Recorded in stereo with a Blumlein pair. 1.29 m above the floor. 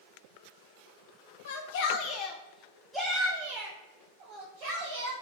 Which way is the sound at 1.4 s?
60° left.